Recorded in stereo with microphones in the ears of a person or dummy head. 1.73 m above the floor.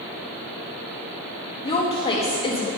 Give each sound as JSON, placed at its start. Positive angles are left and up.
{"t": 1.6, "sound": "a woman speaking", "side_deg": 25, "distance_m": 1.3}